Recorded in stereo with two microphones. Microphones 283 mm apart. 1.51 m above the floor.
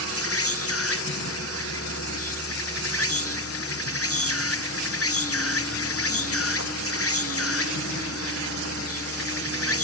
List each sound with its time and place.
0.0 s an insect: 55° left (ahead or behind)